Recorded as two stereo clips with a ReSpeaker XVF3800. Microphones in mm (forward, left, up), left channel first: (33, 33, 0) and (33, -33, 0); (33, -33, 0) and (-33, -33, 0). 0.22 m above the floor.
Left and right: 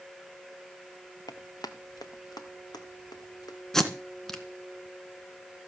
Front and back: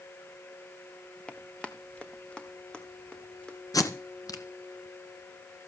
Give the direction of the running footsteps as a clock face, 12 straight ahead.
10 o'clock.